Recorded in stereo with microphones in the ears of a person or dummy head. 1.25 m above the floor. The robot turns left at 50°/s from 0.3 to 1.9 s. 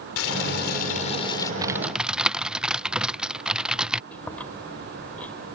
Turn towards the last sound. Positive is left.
turn(degrees=10)  # may be behind; listen again after turning